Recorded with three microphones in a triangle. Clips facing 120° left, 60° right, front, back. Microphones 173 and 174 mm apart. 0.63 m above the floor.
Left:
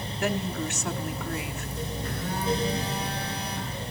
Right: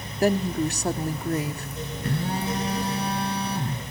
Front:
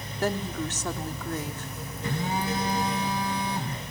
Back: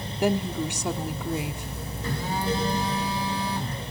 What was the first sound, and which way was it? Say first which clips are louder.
A woman speaking: right 7 dB, back 4 dB; 105° right.